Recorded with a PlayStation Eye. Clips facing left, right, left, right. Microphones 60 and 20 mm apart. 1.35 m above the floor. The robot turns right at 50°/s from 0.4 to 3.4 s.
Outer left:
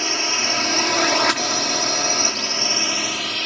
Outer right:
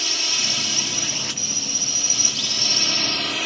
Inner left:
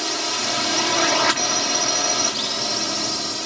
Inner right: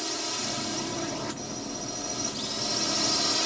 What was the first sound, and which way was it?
A drone, 35° left.